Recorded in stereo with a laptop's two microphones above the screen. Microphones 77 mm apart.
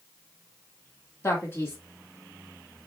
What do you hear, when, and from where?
1.2 s a man speaking: 35° left (ahead or behind), 1.3 m